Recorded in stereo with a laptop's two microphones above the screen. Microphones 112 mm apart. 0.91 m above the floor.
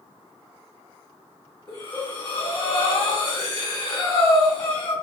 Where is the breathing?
35° left (ahead or behind), 1.6 m.